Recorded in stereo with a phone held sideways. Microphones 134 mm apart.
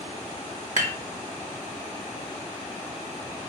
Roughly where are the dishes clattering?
Right.